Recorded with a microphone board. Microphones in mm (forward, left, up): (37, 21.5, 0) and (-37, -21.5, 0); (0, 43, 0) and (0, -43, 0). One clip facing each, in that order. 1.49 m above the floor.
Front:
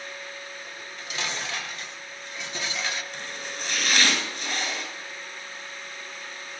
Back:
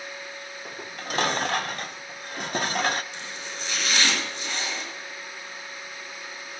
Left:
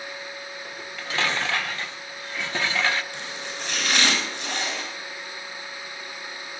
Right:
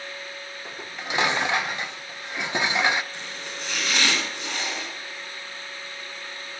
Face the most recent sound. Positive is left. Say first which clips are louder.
# front 1 dB, left 2 dB
turn(degrees=75)